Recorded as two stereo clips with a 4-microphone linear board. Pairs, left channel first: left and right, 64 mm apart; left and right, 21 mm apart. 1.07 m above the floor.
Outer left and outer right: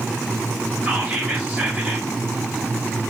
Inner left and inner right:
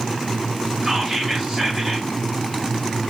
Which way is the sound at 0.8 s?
35° right (ahead or behind).